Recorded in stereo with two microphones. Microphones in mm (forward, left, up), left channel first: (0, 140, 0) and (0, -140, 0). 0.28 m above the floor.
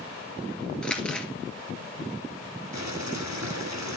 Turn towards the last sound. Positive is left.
turn(degrees=-75)  # may be behind; listen again after turning